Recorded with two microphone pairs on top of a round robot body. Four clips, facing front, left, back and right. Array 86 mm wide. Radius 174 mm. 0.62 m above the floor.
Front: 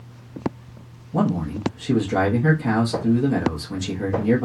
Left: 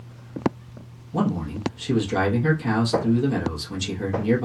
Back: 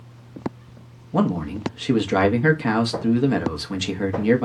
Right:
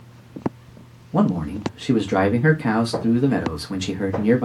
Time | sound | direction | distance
1.1 | a man speaking | 140° right | 0.9 m